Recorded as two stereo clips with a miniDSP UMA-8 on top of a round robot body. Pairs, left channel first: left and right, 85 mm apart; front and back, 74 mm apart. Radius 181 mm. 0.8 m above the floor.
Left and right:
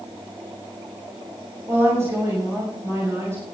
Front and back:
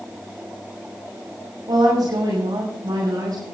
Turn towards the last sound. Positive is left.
turn(degrees=-150)